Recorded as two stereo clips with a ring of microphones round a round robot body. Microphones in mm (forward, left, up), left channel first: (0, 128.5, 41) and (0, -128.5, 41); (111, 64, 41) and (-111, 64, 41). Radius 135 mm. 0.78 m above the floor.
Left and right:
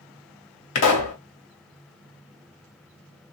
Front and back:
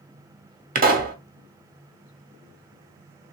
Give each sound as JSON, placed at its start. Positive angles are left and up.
{"t": 0.8, "sound": "a pop", "azimuth_deg": 130, "distance_m": 1.3}